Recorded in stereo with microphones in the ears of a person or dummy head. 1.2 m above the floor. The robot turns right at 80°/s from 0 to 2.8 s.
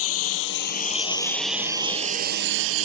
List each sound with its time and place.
0.0 s a lawn mower: 75° left (ahead or behind); by 2.9 s 80° right